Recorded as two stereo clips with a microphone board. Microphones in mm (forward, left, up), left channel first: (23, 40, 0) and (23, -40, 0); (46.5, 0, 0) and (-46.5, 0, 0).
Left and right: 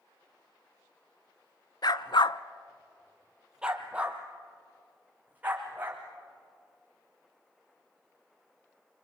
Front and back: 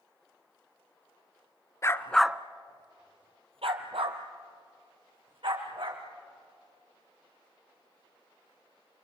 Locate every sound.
1.8 s a dog barking: 60° left, 1.0 m; by 6.0 s 155° right, 5.5 m